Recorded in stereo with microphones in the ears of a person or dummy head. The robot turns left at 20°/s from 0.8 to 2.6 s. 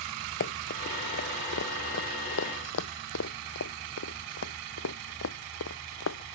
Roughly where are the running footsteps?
Left.